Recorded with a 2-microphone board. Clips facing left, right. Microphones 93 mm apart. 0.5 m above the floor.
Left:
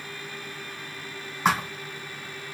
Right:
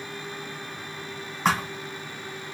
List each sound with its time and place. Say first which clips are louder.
1.4 s a thud: even; 5° left (ahead or behind), 1.3 m